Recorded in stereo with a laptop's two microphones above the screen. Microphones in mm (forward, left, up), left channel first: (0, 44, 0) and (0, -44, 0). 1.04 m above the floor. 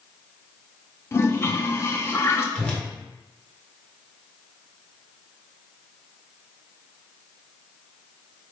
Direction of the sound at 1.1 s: 30° left (ahead or behind).